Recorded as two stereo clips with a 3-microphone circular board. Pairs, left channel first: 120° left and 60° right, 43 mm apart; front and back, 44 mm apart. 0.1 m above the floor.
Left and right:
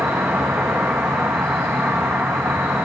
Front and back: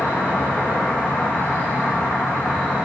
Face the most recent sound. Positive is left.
turn(degrees=-55)